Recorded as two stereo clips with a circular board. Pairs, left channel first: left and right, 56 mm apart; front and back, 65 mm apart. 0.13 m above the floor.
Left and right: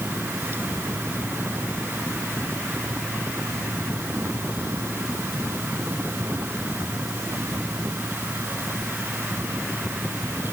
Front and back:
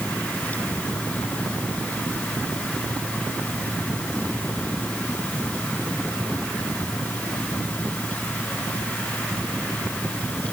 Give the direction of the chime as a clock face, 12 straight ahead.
No chime in this recording.